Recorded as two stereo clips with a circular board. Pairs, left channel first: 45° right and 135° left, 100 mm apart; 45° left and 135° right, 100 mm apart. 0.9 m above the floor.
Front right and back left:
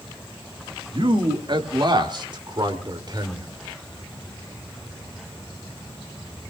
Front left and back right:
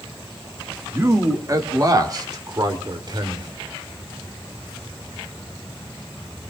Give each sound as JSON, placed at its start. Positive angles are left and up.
{"t": 0.9, "sound": "a man speaking", "azimuth_deg": 165, "distance_m": 1.9}